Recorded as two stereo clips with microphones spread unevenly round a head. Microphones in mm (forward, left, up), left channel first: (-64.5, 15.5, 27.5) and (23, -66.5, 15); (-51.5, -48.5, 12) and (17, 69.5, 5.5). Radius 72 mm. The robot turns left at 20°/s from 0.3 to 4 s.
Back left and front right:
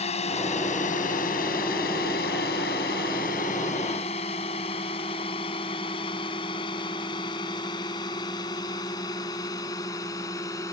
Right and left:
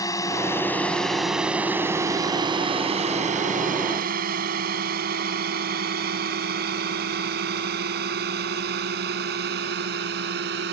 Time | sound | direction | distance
0.0 | a drone | 175° left | ?